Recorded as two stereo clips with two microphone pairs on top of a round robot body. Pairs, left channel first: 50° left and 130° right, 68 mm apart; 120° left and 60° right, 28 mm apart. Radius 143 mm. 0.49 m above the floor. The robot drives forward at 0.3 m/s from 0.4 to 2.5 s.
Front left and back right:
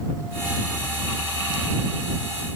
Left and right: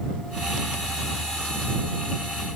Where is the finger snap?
I don't hear a finger snap.